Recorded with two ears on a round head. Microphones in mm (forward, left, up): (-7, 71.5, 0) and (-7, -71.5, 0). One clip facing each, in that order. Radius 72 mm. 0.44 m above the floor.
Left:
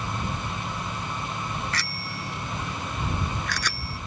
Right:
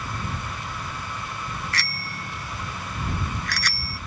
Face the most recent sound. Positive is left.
turn(degrees=80)